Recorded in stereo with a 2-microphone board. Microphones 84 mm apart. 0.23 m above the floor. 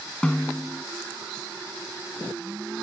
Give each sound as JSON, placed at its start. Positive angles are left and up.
{"t": 0.2, "sound": "a snare drum", "side_deg": 10}